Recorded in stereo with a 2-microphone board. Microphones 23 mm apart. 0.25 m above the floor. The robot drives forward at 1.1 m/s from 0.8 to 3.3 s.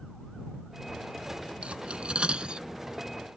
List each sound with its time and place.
1.6 s cutlery clinking: 65° right (ahead or behind); by 2.7 s 45° right (ahead or behind)